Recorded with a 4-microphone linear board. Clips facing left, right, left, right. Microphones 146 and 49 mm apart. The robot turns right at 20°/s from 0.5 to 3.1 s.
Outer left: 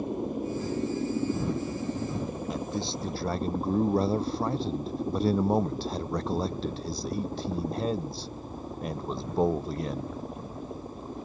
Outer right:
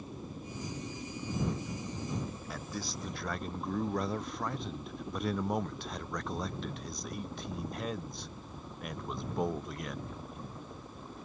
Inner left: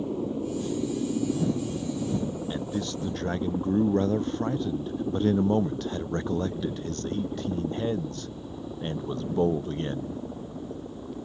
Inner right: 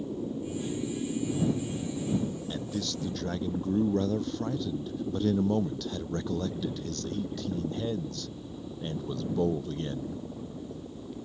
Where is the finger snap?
I don't hear a finger snap.